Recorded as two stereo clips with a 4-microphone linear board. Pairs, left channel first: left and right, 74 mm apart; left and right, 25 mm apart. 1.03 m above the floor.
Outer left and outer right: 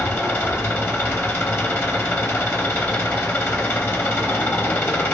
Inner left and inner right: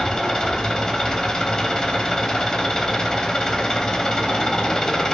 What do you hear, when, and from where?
0.0 s an engine running: 30° left (ahead or behind), 1.0 m